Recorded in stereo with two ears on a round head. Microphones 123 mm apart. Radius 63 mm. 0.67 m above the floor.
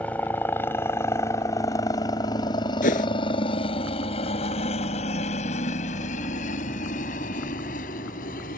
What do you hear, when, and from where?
0.0 s a helicopter: 10° left (ahead or behind); by 8.6 s 70° left (ahead or behind)
2.8 s a whoosh: 65° left (ahead or behind)